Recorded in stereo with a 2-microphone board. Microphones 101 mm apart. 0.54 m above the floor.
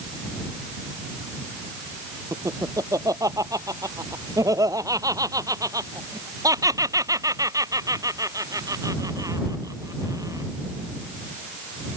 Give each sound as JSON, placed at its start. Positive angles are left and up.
{"t": 2.3, "sound": "laughter", "side_deg": -35}